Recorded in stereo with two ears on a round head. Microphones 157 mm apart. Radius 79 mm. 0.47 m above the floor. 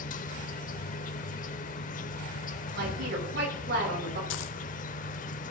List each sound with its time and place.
0.0 s an insect: 50° left (ahead or behind), 0.7 m
2.7 s a woman speaking: 70° right (ahead or behind), 5.5 m
4.3 s a dropped coin: 80° left, 0.7 m